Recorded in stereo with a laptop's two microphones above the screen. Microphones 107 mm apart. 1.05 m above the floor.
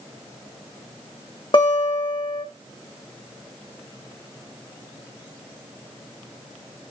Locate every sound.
1.5 s a guitar: 55° left (ahead or behind), 1.7 m